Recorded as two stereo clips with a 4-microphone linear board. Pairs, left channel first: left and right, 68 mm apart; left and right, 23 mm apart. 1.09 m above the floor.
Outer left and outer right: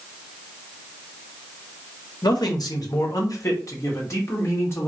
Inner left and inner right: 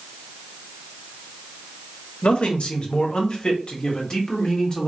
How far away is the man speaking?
About 1.2 m.